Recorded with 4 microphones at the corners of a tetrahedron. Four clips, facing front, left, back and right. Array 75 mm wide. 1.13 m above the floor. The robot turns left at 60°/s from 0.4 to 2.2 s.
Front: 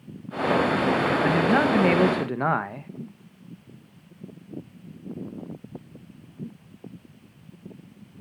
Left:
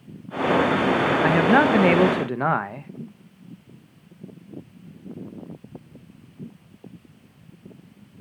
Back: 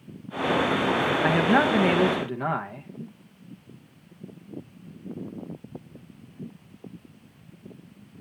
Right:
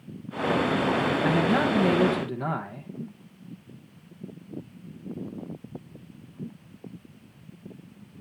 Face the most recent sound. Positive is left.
turn(degrees=60)